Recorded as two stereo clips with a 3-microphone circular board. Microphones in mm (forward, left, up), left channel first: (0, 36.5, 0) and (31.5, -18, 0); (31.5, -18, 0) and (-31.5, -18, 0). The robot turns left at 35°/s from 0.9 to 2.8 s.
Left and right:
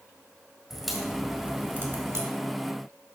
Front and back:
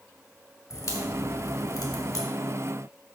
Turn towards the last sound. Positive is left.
turn(degrees=-40)